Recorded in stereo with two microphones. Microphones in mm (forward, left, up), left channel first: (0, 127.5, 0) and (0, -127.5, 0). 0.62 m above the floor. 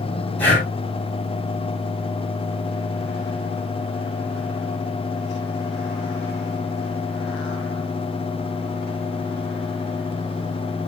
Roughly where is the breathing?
Centre.